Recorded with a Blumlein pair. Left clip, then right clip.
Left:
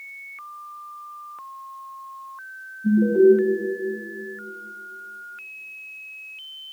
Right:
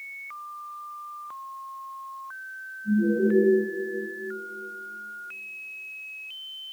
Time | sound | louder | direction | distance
2.8 | an alarm | left 9 dB | 40° left | 0.8 m